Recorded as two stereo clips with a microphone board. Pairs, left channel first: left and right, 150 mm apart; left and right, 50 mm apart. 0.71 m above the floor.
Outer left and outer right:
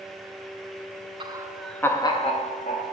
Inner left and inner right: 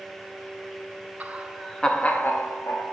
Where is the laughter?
30° right (ahead or behind), 0.6 m; by 2.9 s 60° left (ahead or behind), 1.0 m.